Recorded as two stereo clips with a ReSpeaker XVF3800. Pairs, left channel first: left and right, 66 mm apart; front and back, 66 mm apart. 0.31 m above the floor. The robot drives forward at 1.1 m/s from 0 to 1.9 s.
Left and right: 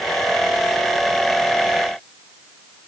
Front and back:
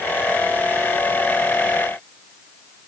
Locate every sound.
Only background noise.